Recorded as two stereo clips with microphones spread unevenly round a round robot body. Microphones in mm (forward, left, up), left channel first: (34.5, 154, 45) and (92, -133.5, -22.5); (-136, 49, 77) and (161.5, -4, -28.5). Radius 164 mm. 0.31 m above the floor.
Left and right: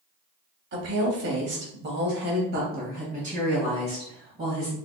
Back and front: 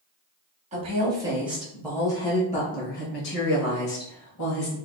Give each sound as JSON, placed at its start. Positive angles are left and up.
{"t": 0.7, "sound": "a woman speaking", "azimuth_deg": -55, "distance_m": 1.3}